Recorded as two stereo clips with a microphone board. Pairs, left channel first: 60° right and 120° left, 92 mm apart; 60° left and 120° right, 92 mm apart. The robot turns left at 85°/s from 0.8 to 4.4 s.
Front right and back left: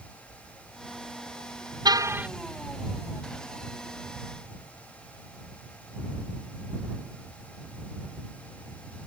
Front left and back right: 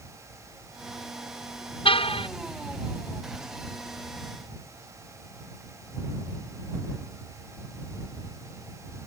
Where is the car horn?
80° left; by 2.3 s 40° left.